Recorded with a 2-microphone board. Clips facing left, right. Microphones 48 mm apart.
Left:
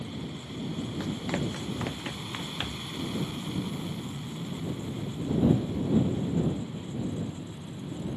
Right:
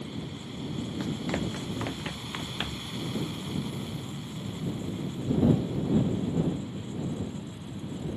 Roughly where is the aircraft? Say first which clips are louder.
Even; centre.